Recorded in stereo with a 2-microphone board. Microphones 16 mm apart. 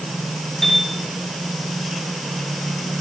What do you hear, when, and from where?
0.6 s a piano: 15° left (ahead or behind), 7 m